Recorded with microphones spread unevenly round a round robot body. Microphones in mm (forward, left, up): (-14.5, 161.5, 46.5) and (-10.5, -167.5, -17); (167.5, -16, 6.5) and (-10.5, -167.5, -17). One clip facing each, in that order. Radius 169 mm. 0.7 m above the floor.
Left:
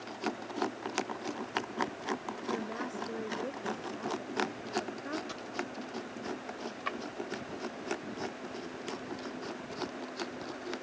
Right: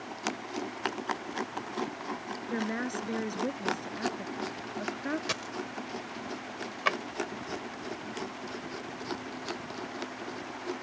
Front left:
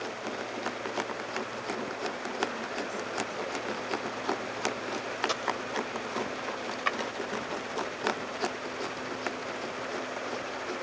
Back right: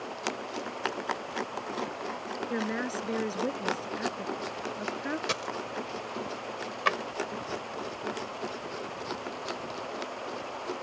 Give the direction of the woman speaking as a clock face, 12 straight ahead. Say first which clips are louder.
Right 5 dB, back right 5 dB; 4 o'clock.